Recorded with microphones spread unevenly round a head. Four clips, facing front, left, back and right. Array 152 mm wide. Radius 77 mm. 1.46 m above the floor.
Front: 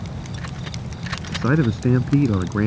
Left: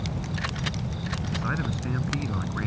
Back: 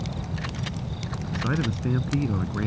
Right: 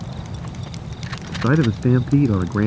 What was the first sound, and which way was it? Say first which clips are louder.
A man speaking: right 14 dB, front 8 dB; 55° right.